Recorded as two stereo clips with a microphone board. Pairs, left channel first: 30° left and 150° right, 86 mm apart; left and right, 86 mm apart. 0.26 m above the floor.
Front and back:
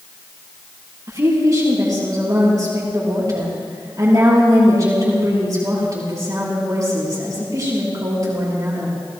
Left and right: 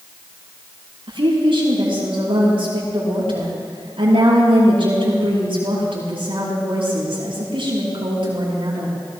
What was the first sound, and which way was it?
A woman speaking, 100° right.